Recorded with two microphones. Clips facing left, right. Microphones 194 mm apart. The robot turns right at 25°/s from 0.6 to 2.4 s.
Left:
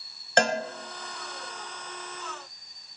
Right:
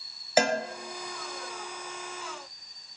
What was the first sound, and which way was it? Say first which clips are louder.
A cowbell: even; 5° right (ahead or behind).